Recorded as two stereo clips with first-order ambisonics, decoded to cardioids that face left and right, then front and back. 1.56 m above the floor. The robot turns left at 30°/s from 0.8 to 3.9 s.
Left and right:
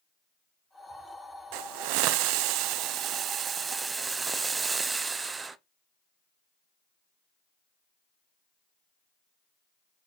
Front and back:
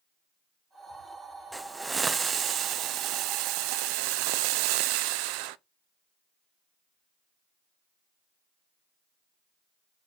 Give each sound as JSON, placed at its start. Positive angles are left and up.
{"t": 1.5, "sound": "a hiss", "azimuth_deg": -95, "distance_m": 0.5}